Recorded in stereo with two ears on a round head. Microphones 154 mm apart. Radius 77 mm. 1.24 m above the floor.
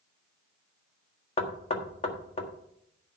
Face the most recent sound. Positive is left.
turn(degrees=35)  # may be behind; listen again after turning